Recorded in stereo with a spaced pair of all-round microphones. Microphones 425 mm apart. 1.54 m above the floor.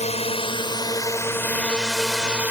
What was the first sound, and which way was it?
A drone, 15° left (ahead or behind).